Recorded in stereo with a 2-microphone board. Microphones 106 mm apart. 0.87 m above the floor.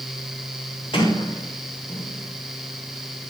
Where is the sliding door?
60° left (ahead or behind), 4 m.